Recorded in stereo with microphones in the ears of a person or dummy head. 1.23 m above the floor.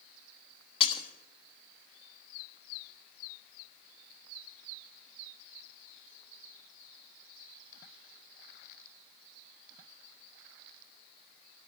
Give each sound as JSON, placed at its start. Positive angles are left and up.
{"t": 0.8, "sound": "breaking glass", "side_deg": 35, "distance_m": 1.2}